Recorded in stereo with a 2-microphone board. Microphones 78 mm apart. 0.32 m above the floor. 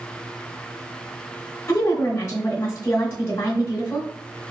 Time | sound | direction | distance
1.7 | a woman speaking | 35° left (ahead or behind) | 1.0 m